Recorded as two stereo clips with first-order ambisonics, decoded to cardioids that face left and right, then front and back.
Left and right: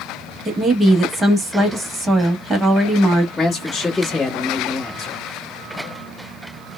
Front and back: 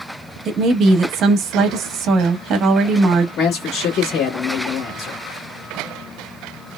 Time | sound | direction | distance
0.5 | a woman speaking | 155° right | 0.8 m
3.4 | a man speaking | 15° left | 1.3 m